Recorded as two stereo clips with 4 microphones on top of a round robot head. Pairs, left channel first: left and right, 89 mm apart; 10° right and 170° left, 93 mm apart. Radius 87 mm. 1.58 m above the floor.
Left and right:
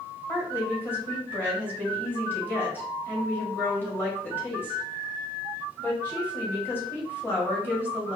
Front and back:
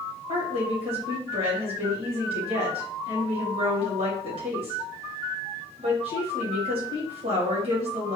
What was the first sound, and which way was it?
A woman speaking, 160° left.